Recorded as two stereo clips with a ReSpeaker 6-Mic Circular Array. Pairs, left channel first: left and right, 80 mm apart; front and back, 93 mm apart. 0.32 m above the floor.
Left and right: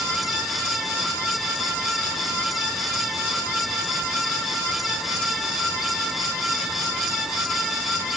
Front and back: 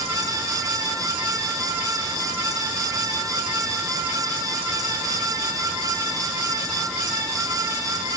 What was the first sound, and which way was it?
Only background noise.